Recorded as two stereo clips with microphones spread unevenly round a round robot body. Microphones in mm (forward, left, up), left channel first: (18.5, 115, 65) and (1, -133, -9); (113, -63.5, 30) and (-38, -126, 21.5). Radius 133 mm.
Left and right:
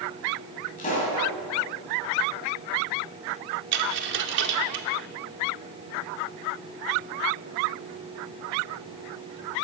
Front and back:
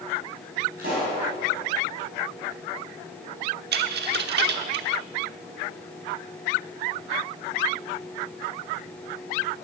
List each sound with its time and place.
0.8 s a pop: 145° left, 4 m
3.7 s a dropped coin: 145° right, 0.8 m